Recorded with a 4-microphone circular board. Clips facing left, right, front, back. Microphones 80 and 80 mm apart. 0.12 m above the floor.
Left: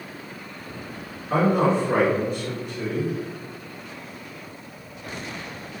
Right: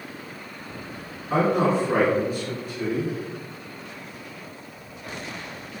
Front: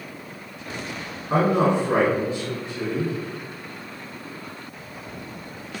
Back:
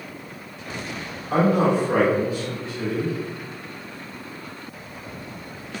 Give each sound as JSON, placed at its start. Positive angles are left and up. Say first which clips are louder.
{"t": 1.3, "sound": "a man speaking", "louder": "left 1 dB, even", "azimuth_deg": -10, "distance_m": 1.8}